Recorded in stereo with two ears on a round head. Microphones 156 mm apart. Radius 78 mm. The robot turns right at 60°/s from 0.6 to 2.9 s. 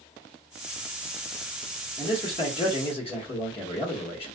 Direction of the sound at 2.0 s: 40° left.